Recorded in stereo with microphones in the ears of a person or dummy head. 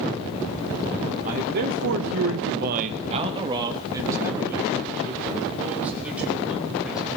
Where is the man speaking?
40° right (ahead or behind), 1.3 m; by 7.1 s 5° right (ahead or behind), 5.5 m.